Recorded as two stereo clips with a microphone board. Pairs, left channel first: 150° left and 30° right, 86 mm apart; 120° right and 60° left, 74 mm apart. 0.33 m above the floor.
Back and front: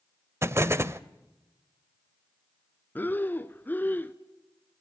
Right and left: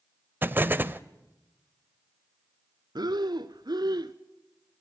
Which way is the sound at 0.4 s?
10° left.